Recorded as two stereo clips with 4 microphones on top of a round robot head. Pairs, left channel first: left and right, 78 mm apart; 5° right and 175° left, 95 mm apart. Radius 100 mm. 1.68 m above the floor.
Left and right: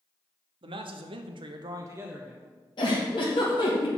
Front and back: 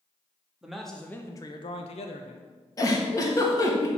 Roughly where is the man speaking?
Right.